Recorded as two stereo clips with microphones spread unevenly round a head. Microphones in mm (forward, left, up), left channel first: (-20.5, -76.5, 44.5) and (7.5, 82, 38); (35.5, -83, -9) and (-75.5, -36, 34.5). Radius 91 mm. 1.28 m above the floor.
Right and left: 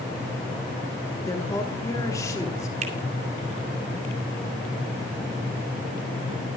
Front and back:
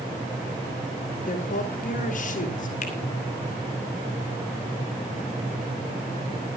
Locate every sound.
1.2 s a woman speaking: 30° right, 3 m
2.8 s a finger snap: 30° left, 2.5 m